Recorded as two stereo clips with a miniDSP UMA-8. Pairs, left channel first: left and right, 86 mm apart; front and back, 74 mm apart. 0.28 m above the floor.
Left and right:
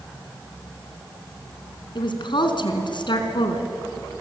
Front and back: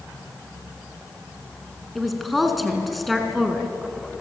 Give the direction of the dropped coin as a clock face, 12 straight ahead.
I don't hear a dropped coin.